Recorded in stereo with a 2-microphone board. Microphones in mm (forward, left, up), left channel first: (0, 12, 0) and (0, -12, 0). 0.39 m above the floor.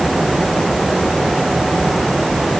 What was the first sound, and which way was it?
Only background noise.